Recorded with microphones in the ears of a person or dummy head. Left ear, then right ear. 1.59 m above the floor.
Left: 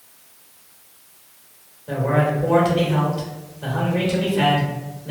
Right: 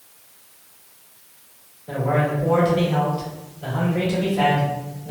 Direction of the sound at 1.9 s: 20° left (ahead or behind).